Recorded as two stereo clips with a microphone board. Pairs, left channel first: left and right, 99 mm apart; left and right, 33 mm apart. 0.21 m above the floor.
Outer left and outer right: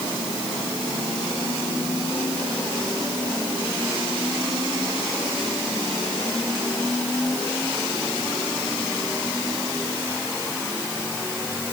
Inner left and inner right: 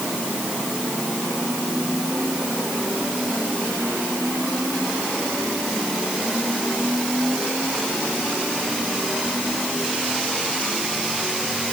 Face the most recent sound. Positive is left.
No sound to turn to.